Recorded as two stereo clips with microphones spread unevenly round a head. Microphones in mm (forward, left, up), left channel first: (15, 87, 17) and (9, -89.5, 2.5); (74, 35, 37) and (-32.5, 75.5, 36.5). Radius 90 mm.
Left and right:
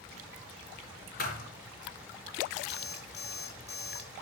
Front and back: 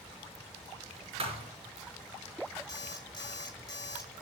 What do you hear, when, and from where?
1.2 s a thud: 130° left, 5.5 m
2.7 s an alarm clock: 35° left, 6 m